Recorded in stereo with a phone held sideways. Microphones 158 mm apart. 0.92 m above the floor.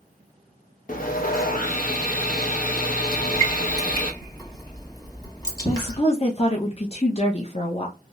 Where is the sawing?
60° left (ahead or behind), 0.7 m.